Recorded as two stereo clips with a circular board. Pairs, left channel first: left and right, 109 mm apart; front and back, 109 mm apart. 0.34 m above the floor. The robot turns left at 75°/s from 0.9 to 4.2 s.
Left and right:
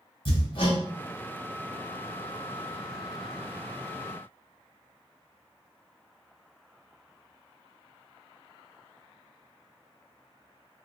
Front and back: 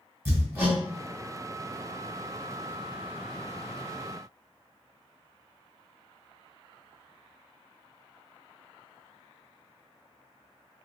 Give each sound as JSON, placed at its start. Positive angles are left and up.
{"t": 0.2, "sound": "hammering", "azimuth_deg": 115, "distance_m": 1.6}